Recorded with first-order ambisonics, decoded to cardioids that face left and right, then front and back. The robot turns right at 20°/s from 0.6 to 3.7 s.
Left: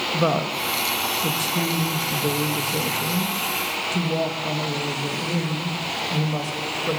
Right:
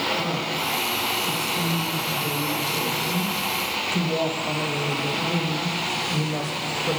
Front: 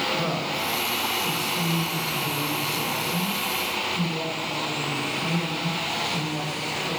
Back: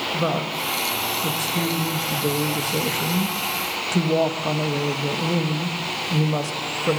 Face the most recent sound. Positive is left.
turn(degrees=175)